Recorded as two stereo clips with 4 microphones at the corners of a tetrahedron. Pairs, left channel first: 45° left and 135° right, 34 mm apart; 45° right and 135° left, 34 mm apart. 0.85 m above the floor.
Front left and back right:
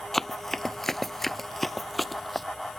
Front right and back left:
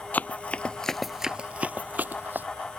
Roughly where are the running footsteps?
Ahead right.